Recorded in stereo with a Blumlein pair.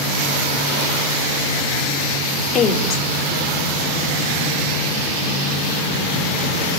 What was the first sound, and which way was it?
A woman speaking, 25° left.